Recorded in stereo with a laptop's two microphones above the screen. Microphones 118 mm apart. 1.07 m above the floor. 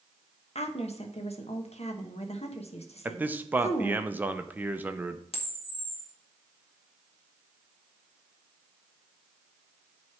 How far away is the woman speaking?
About 1.0 m.